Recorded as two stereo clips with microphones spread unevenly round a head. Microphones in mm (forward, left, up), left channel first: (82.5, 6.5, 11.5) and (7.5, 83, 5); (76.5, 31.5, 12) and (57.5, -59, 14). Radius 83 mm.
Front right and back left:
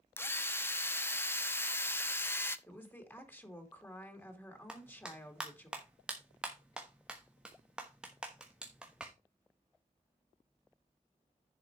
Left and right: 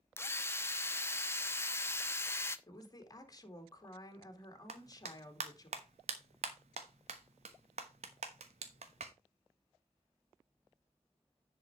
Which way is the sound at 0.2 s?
20° left.